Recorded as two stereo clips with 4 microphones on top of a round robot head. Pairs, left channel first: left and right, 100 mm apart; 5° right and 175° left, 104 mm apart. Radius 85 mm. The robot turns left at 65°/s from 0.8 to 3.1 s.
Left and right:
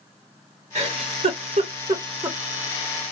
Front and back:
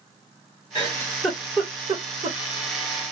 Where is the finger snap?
No finger snap in this recording.